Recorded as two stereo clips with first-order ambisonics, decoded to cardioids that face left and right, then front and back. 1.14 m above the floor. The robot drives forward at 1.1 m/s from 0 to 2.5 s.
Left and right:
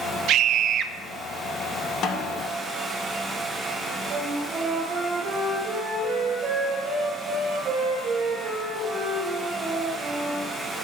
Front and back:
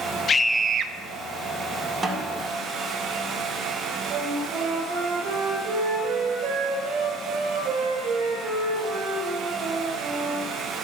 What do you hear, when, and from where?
0.3 s a scream: 65° right, 0.6 m; by 0.9 s 145° right, 0.7 m
2.0 s a snare drum: 120° left, 1.3 m; by 2.4 s 135° left, 1.5 m
4.1 s a flute: 140° right, 4 m